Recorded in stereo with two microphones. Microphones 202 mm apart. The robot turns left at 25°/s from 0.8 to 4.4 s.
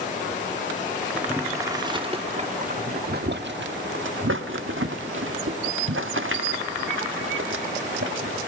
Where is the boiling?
5° right (ahead or behind), 1.4 m; by 8.4 s 85° right, 1.4 m.